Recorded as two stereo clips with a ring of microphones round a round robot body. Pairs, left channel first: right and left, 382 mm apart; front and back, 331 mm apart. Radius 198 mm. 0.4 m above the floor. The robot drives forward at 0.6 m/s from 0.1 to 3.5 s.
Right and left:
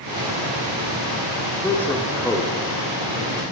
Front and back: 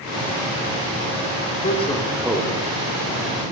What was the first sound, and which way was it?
A man speaking, 10° right.